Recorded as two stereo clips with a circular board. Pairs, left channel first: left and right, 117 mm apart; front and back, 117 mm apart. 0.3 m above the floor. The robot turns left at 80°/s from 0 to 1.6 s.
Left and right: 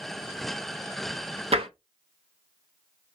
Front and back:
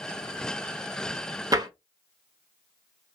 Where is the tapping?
120° right, 0.6 m; by 1.7 s 125° right, 0.6 m.